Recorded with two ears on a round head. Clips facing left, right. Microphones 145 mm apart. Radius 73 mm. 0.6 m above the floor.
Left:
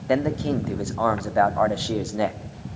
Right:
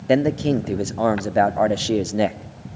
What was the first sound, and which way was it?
A man speaking, 30° right (ahead or behind).